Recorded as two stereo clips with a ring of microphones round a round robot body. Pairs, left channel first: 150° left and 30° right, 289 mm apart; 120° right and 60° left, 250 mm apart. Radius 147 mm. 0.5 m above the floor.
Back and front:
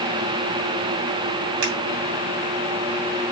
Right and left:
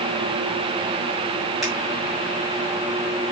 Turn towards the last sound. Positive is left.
turn(degrees=-30)